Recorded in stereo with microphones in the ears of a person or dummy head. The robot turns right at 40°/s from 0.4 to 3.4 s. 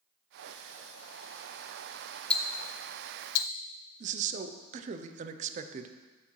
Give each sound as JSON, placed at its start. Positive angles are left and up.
{"t": 2.3, "sound": "ticking", "side_deg": 5, "distance_m": 0.5}
{"t": 4.0, "sound": "a man speaking", "side_deg": -45, "distance_m": 0.5}